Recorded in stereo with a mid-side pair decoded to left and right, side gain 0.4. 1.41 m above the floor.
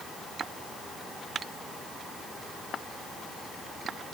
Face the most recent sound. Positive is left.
No sound to turn to.